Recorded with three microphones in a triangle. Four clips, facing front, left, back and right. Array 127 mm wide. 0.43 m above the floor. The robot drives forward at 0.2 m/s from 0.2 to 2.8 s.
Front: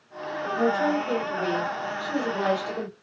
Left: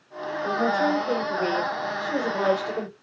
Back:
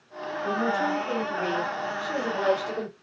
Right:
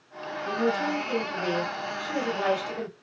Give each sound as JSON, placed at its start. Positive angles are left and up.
{"t": 0.4, "sound": "a woman speaking", "azimuth_deg": 65, "distance_m": 1.5}